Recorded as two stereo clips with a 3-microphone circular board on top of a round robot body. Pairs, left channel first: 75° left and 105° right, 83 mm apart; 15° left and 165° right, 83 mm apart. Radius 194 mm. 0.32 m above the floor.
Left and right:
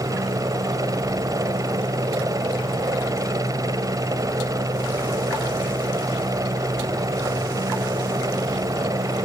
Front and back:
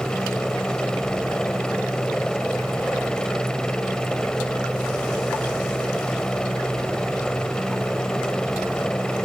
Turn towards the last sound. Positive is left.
turn(degrees=-65)